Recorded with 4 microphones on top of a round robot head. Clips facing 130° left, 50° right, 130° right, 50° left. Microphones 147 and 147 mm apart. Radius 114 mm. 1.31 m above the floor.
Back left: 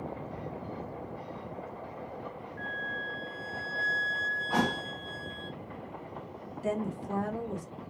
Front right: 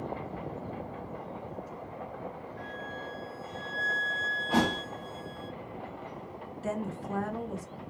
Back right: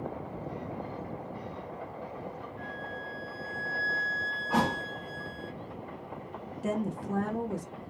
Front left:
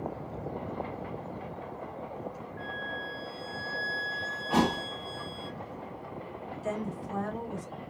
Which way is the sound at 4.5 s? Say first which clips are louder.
Front right 2 dB, front left 2 dB; 5° right.